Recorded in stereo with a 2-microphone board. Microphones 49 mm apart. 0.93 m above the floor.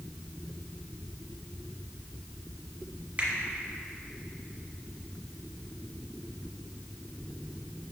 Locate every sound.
3.2 s a finger snap: 30° right (ahead or behind), 1.4 m